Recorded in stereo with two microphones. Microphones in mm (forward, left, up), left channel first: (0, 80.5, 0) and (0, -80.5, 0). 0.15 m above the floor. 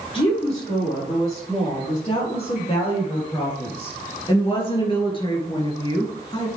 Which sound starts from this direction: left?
A woman speaking, at 0.1 s.